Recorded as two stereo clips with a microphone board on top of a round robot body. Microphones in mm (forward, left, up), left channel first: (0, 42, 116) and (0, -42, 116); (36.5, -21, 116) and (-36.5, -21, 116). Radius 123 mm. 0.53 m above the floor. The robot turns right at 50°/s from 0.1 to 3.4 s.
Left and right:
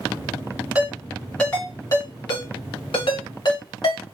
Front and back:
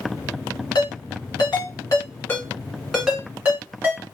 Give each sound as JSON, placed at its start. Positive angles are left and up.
{"t": 0.8, "sound": "a ringtone", "azimuth_deg": -15, "distance_m": 2.0}